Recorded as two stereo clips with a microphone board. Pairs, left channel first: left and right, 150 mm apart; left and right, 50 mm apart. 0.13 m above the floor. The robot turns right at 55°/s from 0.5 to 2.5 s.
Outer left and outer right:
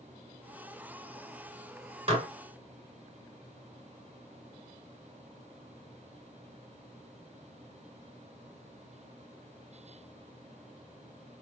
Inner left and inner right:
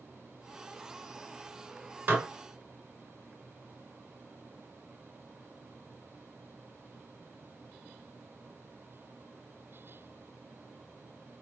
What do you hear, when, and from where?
2.1 s dishes clattering: 40° right (ahead or behind), 1.3 m; by 2.3 s 45° right (ahead or behind), 1.3 m